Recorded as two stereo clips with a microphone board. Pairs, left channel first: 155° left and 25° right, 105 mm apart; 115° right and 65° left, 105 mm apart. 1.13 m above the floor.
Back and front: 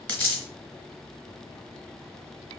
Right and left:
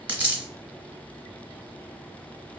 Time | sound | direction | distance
0.1 | a dropped coin | 105° left | 1.0 m